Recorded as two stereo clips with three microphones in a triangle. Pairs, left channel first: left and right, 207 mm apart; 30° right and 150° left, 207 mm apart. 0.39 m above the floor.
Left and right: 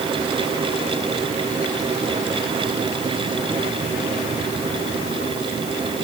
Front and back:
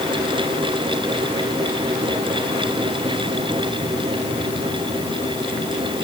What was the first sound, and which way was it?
Only background noise.